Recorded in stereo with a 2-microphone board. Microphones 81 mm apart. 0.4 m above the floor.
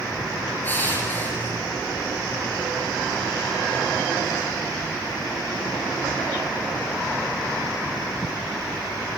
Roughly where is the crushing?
Left.